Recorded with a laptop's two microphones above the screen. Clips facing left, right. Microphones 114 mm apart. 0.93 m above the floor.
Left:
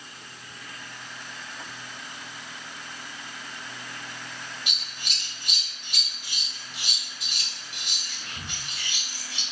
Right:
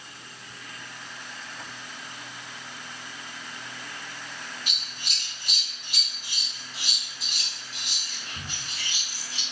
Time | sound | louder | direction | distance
4.7 | scissors | even | 40° right (ahead or behind) | 2.5 m